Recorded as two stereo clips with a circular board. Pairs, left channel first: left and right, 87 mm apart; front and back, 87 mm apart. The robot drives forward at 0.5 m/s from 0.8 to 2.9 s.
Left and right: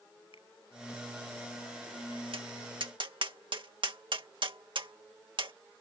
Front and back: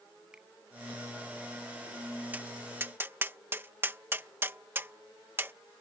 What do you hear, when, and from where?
0.3 s a finger snap: 100° left
2.3 s tapping: 110° right; by 5.5 s 115° right